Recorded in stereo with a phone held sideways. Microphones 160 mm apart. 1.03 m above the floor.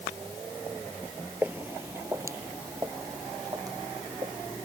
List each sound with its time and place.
1.4 s footsteps: 10° right (ahead or behind); by 4.3 s 25° right (ahead or behind)